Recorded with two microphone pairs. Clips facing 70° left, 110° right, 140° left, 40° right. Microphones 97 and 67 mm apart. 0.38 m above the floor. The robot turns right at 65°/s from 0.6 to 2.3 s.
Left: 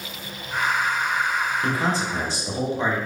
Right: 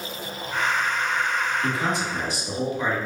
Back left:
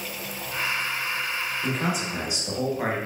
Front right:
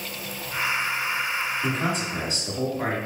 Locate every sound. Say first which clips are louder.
1.6 s a man speaking: left 1 dB, front right 1 dB; 45° left, 0.9 m; by 3.0 s 90° left, 0.9 m